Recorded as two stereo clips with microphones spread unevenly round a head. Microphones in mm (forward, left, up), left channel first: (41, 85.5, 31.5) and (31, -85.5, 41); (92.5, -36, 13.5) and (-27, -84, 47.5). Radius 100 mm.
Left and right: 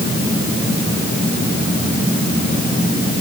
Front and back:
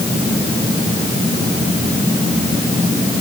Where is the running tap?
I don't hear a running tap.